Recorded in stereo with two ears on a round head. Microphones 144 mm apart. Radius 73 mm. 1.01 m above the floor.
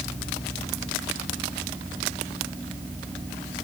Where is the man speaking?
No man speaking in this recording.